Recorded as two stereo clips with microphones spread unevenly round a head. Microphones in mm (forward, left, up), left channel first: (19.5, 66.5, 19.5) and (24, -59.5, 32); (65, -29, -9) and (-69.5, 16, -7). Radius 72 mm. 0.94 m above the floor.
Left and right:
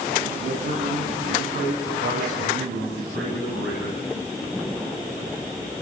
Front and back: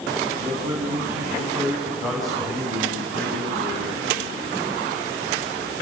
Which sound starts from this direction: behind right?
A man speaking, at 0.4 s.